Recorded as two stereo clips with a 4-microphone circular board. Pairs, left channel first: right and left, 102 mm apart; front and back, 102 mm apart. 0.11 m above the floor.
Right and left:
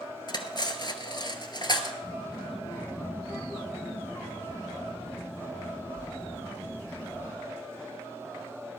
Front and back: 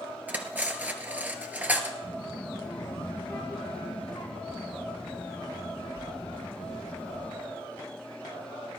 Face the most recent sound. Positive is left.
turn(degrees=-50)